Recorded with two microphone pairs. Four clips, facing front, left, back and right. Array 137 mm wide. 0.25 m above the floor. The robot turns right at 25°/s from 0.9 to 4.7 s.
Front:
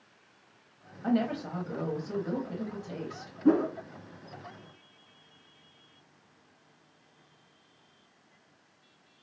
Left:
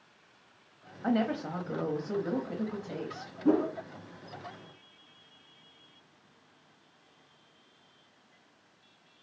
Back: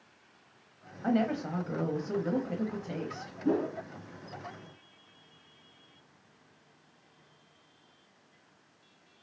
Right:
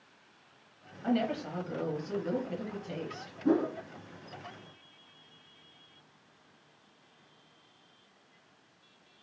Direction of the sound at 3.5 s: 15° left.